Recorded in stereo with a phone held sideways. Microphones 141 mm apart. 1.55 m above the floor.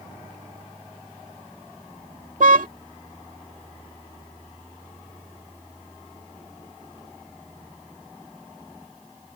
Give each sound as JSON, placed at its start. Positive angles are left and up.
{"t": 2.4, "sound": "a car horn", "side_deg": -70}